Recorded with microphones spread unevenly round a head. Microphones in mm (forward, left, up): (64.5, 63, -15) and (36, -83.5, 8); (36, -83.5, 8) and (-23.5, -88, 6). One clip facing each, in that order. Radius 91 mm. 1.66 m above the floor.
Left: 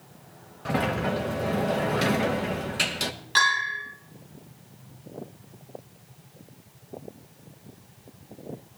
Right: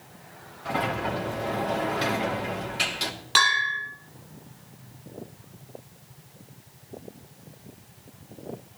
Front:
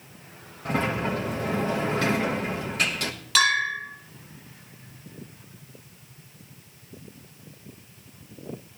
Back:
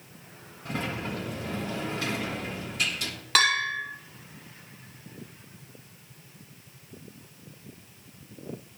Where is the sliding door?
50° left, 1.3 m.